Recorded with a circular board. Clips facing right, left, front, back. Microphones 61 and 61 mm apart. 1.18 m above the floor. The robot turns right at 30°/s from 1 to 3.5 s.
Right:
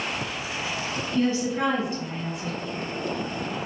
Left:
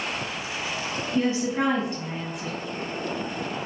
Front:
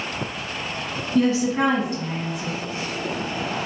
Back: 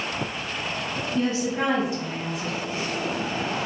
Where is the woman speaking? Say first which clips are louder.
Even, front 6 dB; 15° left, 1.2 m; by 2.5 s 60° left, 1.2 m.